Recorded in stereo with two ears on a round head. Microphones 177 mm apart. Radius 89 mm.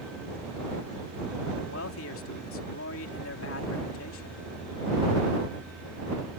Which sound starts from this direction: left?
A man speaking, at 1.6 s.